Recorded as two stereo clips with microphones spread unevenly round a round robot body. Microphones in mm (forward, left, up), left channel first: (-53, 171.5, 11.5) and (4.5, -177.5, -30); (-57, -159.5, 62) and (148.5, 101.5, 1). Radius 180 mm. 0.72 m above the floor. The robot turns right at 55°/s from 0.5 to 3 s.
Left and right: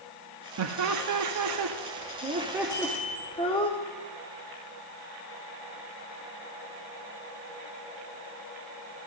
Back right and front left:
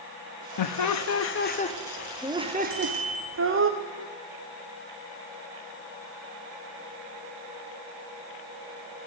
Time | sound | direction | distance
0.6 | laughter | 110° right | 0.9 m
2.7 | a bicycle bell | straight ahead | 6.5 m